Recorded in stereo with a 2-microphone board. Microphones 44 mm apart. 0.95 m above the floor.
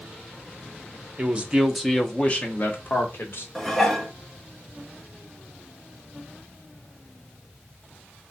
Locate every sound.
1.2 s a man speaking: 30° right (ahead or behind), 0.7 m; by 3.5 s 55° left (ahead or behind), 1.3 m
3.5 s dishes clattering: 5° left (ahead or behind), 0.6 m